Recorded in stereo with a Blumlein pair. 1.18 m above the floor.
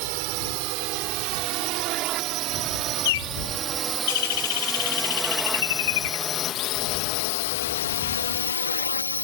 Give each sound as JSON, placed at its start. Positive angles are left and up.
{"t": 0.0, "sound": "a drone", "azimuth_deg": -45}
{"t": 3.0, "sound": "a bird", "azimuth_deg": 55}